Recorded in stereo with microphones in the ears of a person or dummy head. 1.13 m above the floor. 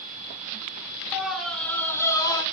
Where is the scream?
5° right (ahead or behind), 3 m; by 2.4 s 25° left (ahead or behind), 4 m.